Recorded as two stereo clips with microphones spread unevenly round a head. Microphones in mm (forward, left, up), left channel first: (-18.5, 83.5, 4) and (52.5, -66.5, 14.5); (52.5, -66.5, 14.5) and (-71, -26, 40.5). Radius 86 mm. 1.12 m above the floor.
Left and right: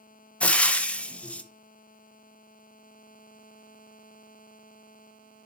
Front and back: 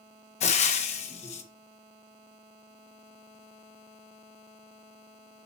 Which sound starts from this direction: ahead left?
Frying, at 0.4 s.